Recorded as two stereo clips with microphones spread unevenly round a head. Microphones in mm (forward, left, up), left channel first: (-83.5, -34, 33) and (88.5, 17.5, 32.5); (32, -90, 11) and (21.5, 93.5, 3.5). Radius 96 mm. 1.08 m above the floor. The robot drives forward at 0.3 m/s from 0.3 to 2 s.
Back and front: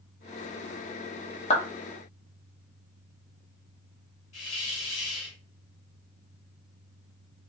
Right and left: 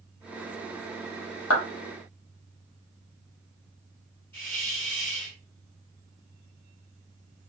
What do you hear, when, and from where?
1.5 s a clap: 105° right, 1.0 m; by 1.6 s 110° right, 1.0 m
4.3 s a hiss: 165° right, 2.0 m